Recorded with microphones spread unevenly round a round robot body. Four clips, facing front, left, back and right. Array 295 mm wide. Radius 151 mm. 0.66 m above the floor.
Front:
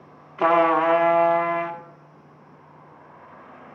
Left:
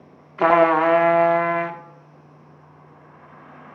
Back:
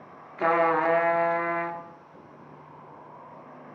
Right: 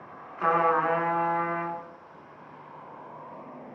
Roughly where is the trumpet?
Left.